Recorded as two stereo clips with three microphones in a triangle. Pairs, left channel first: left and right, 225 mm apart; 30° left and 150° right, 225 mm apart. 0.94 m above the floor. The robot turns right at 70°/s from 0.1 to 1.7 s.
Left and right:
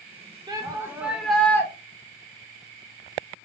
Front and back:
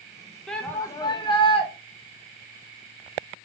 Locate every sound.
0.5 s a shout: 55° right, 0.6 m; by 1.7 s 30° left, 0.6 m